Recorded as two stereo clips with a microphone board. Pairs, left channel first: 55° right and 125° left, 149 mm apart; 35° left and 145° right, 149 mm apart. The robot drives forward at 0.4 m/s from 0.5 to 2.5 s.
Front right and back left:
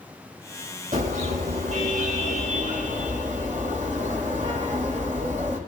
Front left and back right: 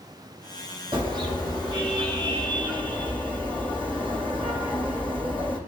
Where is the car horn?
155° left, 8 m; by 5.6 s 160° left, 8.5 m.